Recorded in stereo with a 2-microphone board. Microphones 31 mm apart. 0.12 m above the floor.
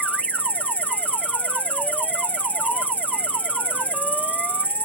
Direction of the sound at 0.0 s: 60° left (ahead or behind).